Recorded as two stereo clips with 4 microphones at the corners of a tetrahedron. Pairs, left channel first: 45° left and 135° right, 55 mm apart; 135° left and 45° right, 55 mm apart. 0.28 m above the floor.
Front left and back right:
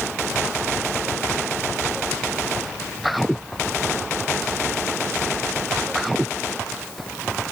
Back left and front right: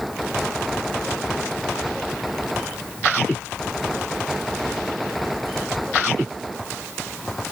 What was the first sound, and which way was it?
Only background noise.